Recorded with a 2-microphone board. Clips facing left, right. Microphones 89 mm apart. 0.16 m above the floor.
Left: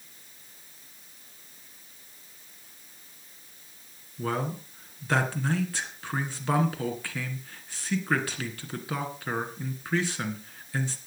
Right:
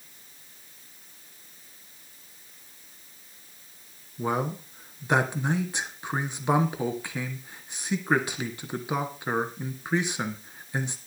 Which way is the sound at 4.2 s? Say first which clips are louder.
Right 2 dB; 20° right (ahead or behind).